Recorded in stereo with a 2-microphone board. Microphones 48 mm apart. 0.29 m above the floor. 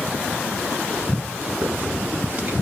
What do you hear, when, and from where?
1.6 s a hiss: 40° right (ahead or behind), 1.1 m